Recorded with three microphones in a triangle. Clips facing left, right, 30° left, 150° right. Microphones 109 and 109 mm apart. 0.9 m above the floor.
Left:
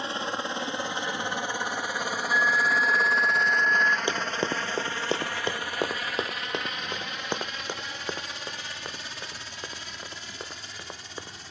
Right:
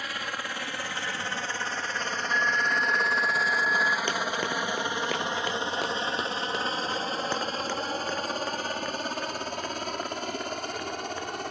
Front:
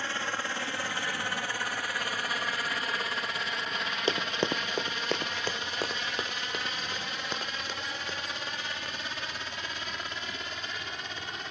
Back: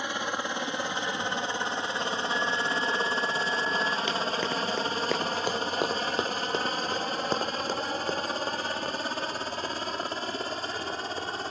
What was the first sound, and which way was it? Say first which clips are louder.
A helicopter: left 4 dB, back 3 dB; 145° left.